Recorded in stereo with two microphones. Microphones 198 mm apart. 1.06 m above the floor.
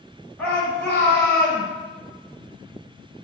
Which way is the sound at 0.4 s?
5° left (ahead or behind).